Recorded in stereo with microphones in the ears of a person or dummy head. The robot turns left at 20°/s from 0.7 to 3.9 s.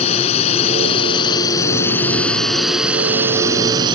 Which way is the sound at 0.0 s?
40° left.